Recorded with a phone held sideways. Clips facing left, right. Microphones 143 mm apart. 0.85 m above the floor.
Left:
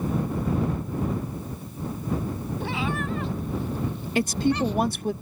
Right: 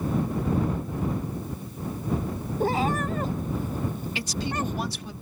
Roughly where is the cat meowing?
Right.